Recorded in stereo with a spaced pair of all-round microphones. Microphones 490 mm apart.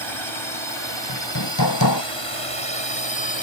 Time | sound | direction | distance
0.0 | a drone | 65° right (ahead or behind) | ?
1.1 | hammering | 50° left (ahead or behind) | ?